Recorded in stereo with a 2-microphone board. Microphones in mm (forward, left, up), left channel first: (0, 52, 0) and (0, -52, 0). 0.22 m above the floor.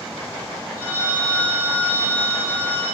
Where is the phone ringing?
65° right (ahead or behind), 3 m.